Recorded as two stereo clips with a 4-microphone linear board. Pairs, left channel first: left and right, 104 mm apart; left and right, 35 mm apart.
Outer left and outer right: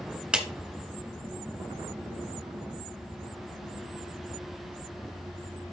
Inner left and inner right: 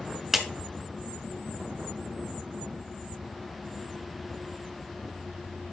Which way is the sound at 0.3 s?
10° right (ahead or behind).